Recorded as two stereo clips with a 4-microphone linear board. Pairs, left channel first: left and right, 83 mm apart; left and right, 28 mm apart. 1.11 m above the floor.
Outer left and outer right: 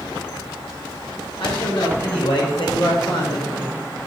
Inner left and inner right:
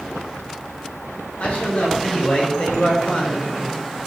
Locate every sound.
1.4 s a man speaking: 85° left, 5.5 m; by 4.1 s 65° left (ahead or behind), 3 m